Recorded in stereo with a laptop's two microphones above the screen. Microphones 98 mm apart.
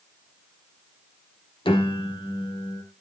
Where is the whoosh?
I don't hear a whoosh.